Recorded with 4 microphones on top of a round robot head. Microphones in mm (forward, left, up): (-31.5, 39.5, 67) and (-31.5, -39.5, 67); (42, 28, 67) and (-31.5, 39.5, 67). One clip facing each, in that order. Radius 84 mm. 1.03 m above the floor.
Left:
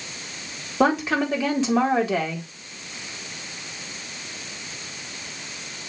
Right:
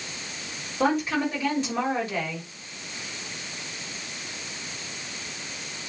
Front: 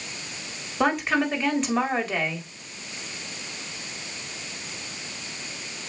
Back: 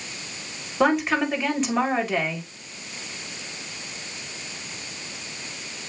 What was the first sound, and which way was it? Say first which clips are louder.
A woman speaking: left 3 dB, back 2 dB; 85° left.